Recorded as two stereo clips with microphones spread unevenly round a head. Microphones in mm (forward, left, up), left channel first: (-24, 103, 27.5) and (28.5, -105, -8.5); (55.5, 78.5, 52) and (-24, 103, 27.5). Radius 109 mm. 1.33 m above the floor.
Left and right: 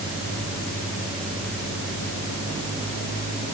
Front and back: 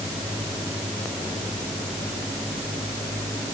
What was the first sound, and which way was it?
Only background noise.